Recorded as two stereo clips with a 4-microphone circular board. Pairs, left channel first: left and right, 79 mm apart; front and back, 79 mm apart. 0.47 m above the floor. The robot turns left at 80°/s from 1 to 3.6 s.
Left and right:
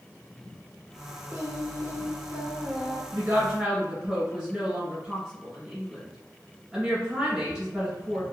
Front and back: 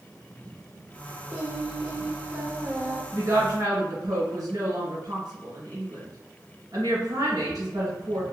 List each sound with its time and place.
1.3 s singing: 60° right, 1.7 m; by 3.0 s 165° left, 1.7 m
3.1 s a woman speaking: 135° right, 1.8 m; by 8.2 s 175° right, 1.8 m